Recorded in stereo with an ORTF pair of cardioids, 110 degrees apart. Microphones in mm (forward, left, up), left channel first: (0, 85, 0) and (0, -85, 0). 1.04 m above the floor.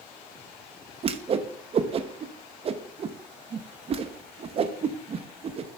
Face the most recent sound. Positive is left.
turn(degrees=-35)